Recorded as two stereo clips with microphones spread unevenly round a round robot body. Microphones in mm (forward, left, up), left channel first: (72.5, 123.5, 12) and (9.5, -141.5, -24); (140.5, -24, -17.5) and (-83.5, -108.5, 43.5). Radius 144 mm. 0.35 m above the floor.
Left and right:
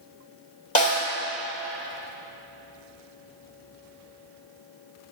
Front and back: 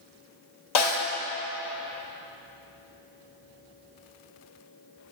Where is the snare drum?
15° left, 2.5 m.